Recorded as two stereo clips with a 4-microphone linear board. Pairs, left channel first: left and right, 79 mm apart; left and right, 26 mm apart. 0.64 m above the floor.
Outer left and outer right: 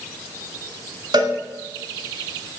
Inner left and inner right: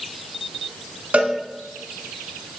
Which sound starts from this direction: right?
A cowbell, at 1.1 s.